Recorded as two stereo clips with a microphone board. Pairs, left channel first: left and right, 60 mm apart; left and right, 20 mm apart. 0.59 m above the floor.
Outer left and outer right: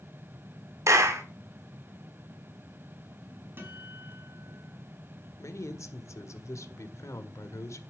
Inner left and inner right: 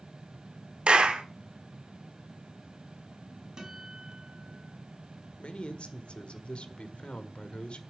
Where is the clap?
55° right (ahead or behind), 1.6 m.